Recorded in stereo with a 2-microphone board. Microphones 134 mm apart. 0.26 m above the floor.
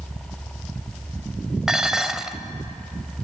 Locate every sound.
1.7 s dishes clattering: 5° right (ahead or behind), 0.6 m